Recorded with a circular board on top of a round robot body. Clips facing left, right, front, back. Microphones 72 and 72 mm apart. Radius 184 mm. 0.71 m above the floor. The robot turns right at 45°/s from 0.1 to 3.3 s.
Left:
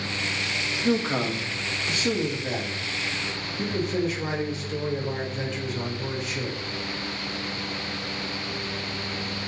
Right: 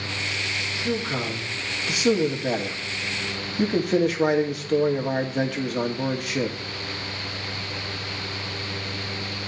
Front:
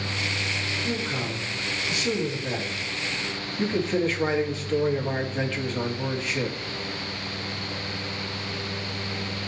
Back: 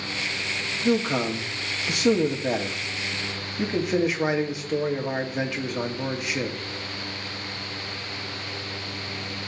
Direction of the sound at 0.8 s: 145° left.